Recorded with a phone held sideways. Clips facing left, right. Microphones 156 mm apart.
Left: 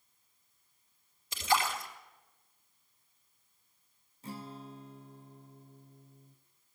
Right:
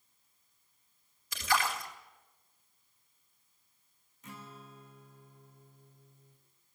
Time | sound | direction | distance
1.3 | a splash | 25° left (ahead or behind) | 3.5 m
4.2 | a guitar | 35° left (ahead or behind) | 1.2 m